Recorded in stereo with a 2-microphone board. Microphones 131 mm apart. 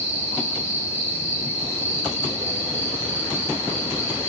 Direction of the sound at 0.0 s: 20° left (ahead or behind).